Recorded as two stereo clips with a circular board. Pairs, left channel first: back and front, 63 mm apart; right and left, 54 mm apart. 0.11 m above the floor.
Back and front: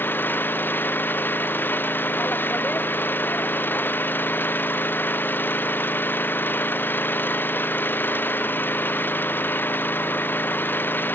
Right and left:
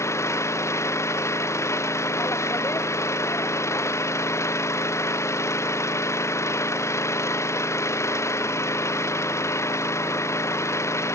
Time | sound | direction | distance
0.0 | an engine running | 120° right | ?